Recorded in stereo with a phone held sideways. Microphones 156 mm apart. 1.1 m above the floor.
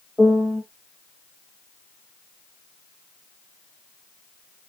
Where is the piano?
10° left (ahead or behind), 0.6 m.